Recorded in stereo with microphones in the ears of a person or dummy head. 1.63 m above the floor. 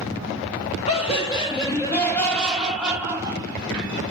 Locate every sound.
0.9 s laughter: 35° left (ahead or behind), 1.5 m; by 3.9 s 30° right (ahead or behind), 1.3 m